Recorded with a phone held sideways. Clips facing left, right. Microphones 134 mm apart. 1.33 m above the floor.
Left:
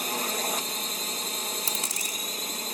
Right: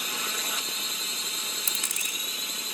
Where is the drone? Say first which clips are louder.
Left 6 dB; 50° left (ahead or behind).